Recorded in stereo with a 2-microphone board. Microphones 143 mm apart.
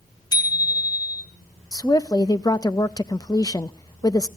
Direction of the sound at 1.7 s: 25° left (ahead or behind).